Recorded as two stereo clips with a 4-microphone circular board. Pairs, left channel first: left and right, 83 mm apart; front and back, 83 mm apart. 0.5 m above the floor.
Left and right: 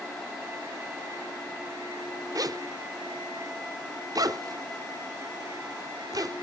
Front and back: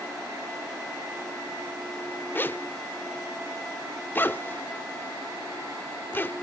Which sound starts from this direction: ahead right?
A zipper, at 2.4 s.